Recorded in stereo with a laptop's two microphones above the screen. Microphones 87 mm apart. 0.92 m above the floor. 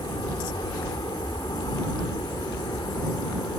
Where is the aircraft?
60° left (ahead or behind).